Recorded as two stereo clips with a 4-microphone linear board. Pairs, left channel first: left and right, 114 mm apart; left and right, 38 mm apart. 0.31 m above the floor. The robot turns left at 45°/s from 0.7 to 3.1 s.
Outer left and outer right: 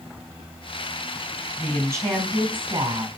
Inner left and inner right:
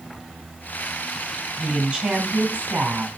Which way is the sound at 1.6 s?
10° right.